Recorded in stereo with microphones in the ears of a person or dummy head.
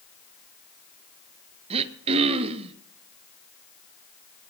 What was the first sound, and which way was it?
Throat clearing, 35° right (ahead or behind).